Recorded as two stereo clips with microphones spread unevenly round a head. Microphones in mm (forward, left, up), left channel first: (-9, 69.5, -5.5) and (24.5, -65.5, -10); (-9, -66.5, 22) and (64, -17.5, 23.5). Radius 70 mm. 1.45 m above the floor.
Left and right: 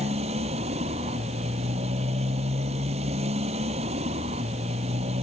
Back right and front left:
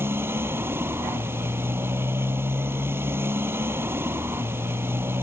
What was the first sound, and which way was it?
A motorcycle, 30° right.